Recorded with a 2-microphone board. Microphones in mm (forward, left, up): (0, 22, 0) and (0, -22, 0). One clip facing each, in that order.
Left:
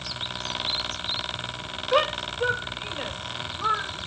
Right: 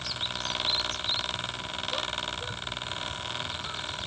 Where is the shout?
65° left (ahead or behind); by 4.1 s 55° left (ahead or behind).